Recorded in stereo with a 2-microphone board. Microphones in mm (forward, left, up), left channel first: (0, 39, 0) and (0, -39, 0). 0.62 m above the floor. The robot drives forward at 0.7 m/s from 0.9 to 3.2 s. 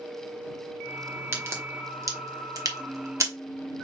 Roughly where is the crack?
Right.